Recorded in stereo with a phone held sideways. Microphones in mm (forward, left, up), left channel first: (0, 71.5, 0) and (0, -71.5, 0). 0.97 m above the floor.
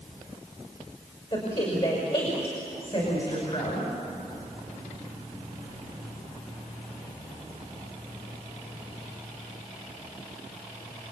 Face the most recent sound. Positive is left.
turn(degrees=45)  # may be behind; listen again after turning